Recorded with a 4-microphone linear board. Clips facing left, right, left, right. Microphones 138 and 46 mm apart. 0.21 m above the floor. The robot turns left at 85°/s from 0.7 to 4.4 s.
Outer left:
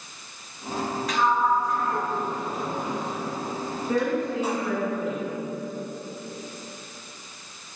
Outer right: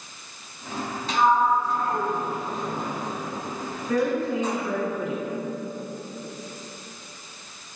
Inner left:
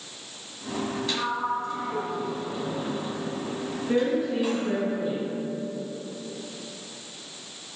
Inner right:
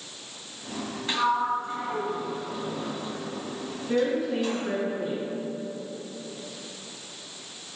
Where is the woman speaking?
20° left, 1.9 m; by 5.3 s 20° right, 1.9 m.